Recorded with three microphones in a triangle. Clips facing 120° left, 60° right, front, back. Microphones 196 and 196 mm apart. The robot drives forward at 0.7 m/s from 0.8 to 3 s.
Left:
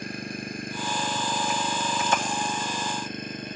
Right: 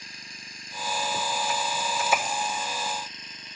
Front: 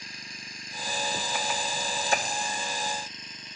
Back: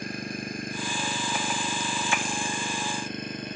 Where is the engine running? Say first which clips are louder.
Left 17 dB, back 15 dB; 150° left.